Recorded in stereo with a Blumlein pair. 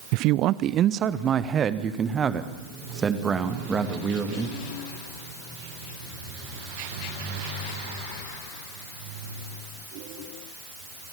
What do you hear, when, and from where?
0.1 s a man speaking: 45° right, 0.5 m; by 4.5 s 15° right, 2.5 m